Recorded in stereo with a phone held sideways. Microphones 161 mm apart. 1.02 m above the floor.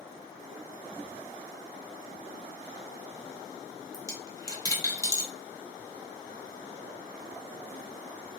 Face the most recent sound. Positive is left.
turn(degrees=20)  # may be behind; listen again after turning